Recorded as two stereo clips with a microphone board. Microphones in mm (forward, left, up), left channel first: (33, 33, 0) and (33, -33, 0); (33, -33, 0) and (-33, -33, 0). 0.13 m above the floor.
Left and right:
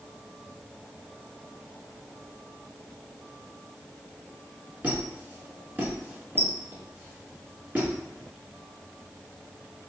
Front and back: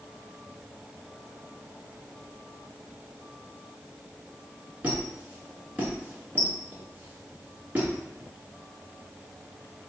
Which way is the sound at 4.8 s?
135° right.